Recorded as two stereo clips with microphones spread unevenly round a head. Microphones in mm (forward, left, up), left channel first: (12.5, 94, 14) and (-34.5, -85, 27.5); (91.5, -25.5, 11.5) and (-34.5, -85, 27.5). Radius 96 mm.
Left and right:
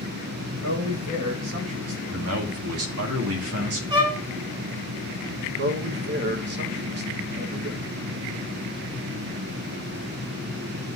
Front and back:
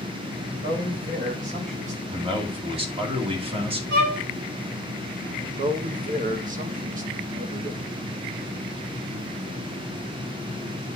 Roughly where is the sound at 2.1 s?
Right.